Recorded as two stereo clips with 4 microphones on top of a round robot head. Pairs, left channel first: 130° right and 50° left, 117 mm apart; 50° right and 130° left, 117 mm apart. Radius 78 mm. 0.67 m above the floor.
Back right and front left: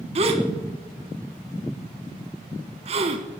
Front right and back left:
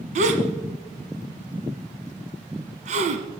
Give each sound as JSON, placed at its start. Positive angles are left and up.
{"t": 0.1, "sound": "a gasp", "azimuth_deg": 95, "distance_m": 1.5}